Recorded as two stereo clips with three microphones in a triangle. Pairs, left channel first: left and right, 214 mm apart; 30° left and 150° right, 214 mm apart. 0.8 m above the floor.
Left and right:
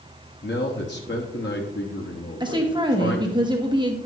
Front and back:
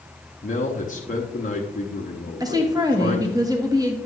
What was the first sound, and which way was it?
A man speaking, 75° left.